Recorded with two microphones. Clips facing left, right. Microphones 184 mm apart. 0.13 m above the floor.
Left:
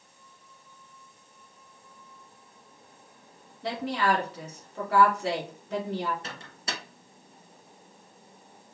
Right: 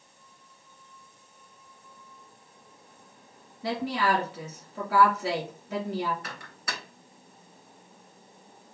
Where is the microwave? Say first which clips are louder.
Left 1 dB; 25° left (ahead or behind), 1.0 m.